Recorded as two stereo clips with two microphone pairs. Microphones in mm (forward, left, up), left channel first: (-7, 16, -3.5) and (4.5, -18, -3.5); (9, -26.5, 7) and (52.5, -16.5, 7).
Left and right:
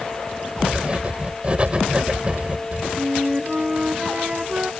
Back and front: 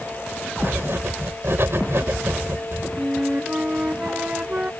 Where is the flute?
30° right.